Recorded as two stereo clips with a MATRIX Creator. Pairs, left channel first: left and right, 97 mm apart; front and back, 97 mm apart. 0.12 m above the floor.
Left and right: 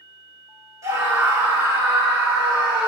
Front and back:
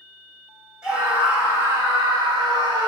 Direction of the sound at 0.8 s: 110° right.